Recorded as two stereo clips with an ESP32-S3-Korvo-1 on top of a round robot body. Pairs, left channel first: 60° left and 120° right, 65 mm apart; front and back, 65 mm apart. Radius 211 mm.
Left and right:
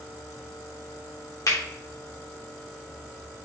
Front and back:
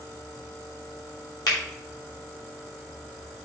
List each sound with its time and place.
1.5 s a finger snap: 25° left, 3 m